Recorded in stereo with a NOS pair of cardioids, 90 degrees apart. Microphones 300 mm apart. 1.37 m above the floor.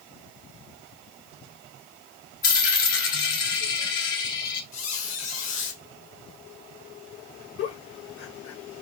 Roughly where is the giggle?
Ahead left.